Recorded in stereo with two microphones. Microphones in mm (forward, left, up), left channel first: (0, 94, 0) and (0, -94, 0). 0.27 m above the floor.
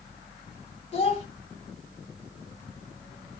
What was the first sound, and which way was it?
A child speaking, 35° left (ahead or behind).